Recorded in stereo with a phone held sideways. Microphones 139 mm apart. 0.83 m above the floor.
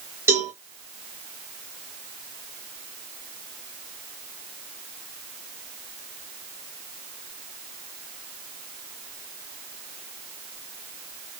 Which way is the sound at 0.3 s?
15° right (ahead or behind).